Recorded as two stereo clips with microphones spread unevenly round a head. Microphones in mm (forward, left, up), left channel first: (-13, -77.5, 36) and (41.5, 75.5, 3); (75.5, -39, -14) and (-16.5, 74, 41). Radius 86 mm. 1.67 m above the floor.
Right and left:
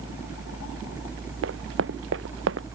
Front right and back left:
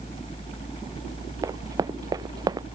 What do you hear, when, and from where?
1.4 s running footsteps: 65° left; by 2.7 s 70° left